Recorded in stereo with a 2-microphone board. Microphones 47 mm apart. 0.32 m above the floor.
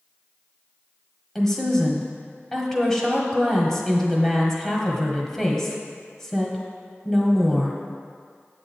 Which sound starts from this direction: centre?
A woman speaking, at 1.4 s.